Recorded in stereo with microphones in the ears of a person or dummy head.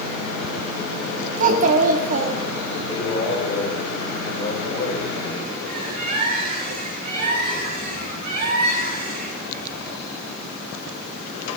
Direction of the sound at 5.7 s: 50° right (ahead or behind).